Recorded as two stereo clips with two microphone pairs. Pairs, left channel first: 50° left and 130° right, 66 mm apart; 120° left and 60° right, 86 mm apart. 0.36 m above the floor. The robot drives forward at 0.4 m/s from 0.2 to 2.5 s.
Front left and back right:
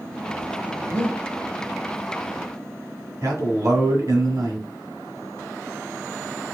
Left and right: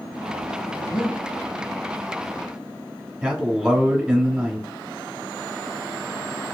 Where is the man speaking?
135° right, 1.3 m.